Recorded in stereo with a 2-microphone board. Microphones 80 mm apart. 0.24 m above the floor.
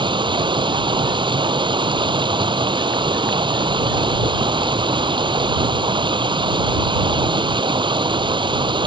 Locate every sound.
0.0 s running water: 80° right